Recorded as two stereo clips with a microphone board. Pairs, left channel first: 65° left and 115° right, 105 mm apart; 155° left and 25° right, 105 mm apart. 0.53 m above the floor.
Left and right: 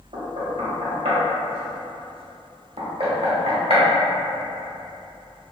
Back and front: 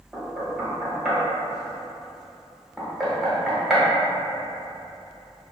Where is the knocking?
110° right, 0.8 m.